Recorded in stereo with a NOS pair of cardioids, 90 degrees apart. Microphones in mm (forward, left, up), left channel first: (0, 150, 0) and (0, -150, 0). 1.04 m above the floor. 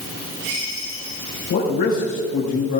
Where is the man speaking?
70° left, 4.5 m.